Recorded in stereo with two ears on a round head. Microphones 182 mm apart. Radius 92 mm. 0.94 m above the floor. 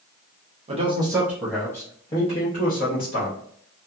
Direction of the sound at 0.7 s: 35° right (ahead or behind).